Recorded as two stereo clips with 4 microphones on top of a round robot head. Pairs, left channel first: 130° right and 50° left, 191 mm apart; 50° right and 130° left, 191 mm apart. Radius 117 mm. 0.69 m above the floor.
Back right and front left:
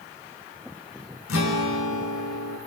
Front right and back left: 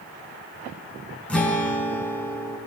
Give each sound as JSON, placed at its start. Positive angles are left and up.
{"t": 1.3, "sound": "a guitar", "azimuth_deg": -135, "distance_m": 5.5}